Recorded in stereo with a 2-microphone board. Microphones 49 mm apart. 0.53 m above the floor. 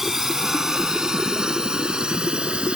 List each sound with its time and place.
0.0 s a drone: 5° right (ahead or behind); by 2.8 s 20° right (ahead or behind)